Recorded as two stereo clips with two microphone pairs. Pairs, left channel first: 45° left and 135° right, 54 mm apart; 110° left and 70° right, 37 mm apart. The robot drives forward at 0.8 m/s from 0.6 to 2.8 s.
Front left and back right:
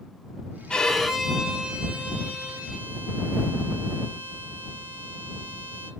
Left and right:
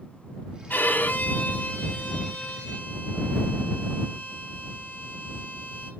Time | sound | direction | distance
0.7 | a violin | 115° left | 0.6 m